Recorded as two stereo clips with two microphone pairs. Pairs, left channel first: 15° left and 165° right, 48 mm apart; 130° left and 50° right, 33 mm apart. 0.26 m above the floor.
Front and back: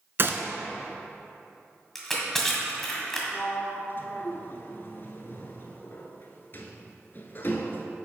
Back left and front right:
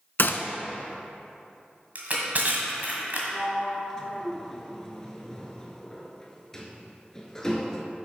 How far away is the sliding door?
About 0.9 m.